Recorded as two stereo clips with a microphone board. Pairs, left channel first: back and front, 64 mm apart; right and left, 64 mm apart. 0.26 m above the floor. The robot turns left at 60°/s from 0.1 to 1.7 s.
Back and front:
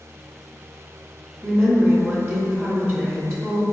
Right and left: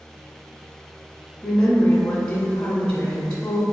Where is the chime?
I don't hear a chime.